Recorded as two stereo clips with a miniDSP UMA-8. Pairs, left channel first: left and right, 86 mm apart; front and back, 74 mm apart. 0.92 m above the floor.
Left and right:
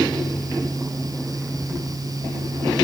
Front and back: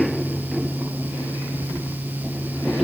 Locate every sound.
Only background noise.